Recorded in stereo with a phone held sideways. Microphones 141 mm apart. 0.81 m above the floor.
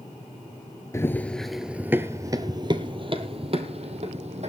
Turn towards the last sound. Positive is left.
turn(degrees=-50)  # may be behind; listen again after turning